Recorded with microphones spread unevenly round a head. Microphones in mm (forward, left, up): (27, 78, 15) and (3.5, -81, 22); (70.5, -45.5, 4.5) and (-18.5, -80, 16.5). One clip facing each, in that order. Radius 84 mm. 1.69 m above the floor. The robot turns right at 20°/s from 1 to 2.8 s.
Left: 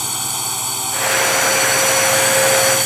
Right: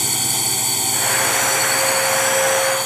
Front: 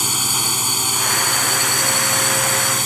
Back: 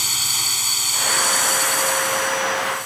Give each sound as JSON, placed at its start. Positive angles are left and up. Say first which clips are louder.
{"t": 0.0, "sound": "a drone", "louder": "right 1 dB, front 6 dB", "azimuth_deg": -25}